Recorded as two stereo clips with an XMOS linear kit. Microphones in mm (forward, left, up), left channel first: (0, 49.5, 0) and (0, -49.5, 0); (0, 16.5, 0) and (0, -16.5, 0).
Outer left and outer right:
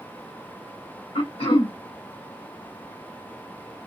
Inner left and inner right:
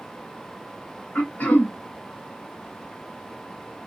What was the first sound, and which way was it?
Throat clearing, 80° left.